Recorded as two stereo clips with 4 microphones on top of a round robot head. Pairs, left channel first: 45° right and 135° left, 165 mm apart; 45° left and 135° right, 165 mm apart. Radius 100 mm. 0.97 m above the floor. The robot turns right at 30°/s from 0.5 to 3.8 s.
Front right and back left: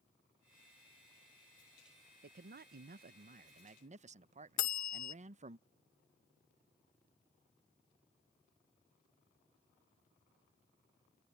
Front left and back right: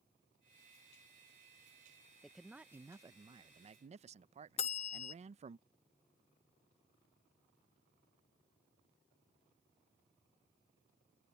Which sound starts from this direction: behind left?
A man speaking, at 2.2 s.